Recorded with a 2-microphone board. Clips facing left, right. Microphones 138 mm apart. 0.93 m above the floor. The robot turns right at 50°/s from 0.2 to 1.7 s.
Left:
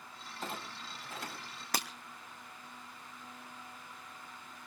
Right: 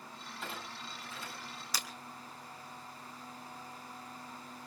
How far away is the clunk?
About 8 m.